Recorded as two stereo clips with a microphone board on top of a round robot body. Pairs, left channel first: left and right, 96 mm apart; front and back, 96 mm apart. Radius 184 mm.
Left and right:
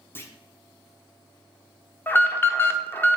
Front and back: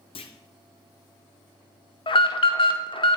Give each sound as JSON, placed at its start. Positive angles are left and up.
{"t": 0.1, "sound": "a clunk", "azimuth_deg": 25, "distance_m": 0.7}
{"t": 2.1, "sound": "an alarm", "azimuth_deg": 20, "distance_m": 0.8}